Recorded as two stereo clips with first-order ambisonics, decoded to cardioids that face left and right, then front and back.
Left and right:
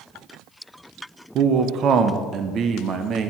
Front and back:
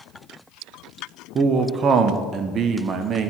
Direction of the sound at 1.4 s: 130° right.